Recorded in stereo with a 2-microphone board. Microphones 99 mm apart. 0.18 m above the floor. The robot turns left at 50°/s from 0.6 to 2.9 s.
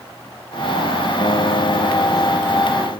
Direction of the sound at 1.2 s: 130° left.